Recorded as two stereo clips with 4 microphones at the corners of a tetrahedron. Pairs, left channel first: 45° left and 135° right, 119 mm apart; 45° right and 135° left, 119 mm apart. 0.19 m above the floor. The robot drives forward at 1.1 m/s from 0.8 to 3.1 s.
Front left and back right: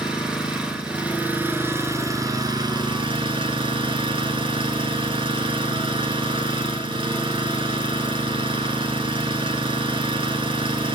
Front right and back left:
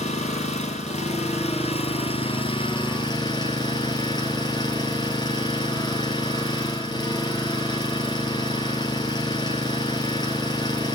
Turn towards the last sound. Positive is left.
turn(degrees=-95)